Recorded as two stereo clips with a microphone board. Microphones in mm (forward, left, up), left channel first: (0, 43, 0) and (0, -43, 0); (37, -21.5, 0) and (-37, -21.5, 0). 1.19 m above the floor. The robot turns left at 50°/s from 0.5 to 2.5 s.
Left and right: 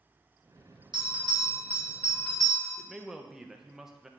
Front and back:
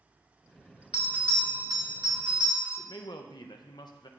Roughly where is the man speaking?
Ahead.